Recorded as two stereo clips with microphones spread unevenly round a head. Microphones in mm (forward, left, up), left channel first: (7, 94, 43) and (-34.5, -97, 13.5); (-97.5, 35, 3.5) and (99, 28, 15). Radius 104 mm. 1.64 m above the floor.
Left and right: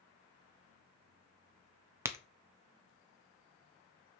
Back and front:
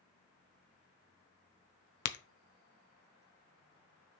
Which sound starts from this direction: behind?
A crack, at 2.0 s.